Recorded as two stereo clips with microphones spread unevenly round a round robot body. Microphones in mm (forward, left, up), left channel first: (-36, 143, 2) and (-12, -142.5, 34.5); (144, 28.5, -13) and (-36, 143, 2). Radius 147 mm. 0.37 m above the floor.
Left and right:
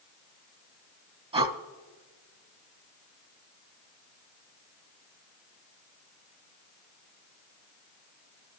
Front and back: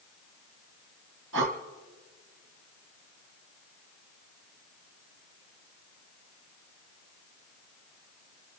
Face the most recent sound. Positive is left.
turn(degrees=-155)